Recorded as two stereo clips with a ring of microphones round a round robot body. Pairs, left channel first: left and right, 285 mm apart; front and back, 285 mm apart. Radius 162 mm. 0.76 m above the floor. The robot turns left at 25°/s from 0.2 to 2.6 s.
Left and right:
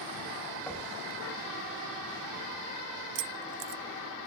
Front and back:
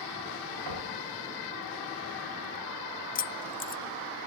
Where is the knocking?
175° left, 6 m; by 0.9 s 170° left, 6 m.